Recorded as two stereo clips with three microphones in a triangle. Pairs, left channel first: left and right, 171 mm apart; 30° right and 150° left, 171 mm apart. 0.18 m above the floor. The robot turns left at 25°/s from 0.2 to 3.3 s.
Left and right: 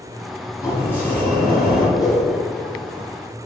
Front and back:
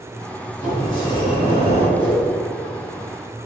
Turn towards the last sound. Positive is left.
turn(degrees=-10)